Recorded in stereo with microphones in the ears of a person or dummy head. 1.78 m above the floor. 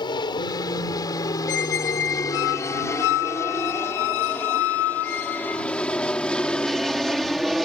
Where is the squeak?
70° left (ahead or behind).